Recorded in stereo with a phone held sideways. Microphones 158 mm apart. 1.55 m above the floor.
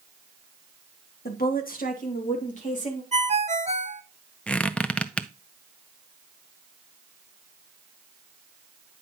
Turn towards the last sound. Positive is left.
turn(degrees=10)  # may be behind; listen again after turning